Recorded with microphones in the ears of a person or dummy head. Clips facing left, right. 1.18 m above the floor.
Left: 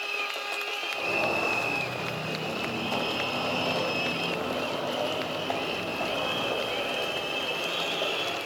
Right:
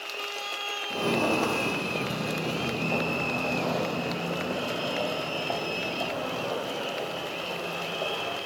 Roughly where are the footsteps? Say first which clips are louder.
Right 5 dB; right.